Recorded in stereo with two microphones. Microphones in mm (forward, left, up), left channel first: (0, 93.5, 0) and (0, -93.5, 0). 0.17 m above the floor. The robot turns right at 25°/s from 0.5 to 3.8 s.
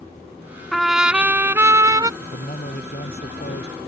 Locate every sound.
0.7 s a trumpet: straight behind; by 2.1 s 145° right
2.2 s a man speaking: 50° left; by 3.8 s 90° left